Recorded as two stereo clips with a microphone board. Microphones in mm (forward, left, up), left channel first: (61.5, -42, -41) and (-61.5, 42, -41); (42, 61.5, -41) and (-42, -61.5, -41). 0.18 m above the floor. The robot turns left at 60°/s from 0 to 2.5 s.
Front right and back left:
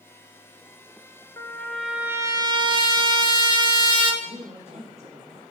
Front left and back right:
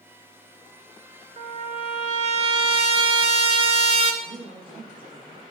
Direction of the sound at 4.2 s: 175° right.